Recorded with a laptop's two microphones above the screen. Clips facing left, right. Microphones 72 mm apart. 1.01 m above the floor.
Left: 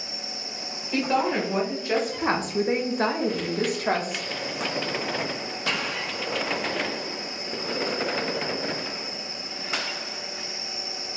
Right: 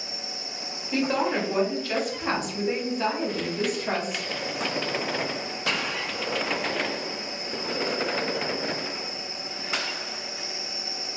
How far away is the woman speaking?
About 1.0 m.